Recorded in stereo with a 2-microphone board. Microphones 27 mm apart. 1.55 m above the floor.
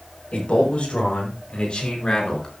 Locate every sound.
0.3 s a man speaking: 45° left (ahead or behind), 6.5 m; by 2.5 s 30° left (ahead or behind), 5 m